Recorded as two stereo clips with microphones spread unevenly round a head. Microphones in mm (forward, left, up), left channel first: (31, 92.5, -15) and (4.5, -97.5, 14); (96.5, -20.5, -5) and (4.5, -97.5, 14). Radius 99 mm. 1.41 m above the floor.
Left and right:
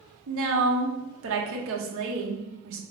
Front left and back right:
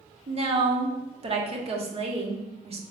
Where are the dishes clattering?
No dishes clattering in this recording.